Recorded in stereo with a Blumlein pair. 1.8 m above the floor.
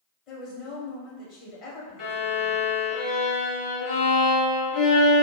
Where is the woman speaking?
35° left, 1.3 m.